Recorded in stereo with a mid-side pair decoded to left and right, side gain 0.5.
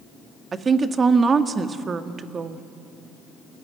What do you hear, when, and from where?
0.5 s a woman speaking: 35° right, 1.5 m